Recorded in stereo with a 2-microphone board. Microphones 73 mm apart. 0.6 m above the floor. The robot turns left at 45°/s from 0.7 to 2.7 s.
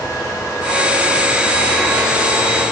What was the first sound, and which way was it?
Only background noise.